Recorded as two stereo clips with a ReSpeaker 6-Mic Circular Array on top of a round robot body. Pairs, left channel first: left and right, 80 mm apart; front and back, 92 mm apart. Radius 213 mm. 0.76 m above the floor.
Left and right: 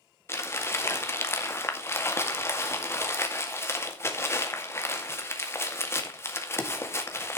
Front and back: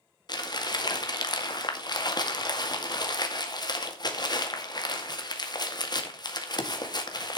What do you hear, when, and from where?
0.3 s crumpling: 35° left, 2.5 m